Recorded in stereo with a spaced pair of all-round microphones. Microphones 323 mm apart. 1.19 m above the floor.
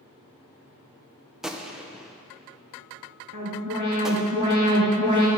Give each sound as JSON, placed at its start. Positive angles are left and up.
{"t": 1.4, "sound": "a gunshot", "side_deg": 0, "distance_m": 0.7}
{"t": 3.3, "sound": "an alarm", "side_deg": -65, "distance_m": 2.0}